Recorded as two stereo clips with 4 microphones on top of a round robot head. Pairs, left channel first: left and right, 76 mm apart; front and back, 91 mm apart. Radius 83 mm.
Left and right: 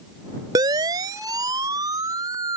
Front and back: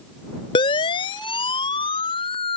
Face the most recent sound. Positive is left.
turn(degrees=-40)